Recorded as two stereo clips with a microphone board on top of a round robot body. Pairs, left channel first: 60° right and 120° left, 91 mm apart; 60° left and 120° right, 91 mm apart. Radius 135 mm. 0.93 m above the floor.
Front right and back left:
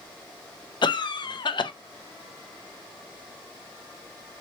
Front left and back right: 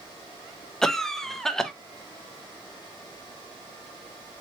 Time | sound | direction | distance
0.8 | a cough | 25° right | 0.6 m